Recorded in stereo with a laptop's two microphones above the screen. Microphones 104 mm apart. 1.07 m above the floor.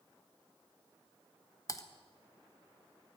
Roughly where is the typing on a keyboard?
Left.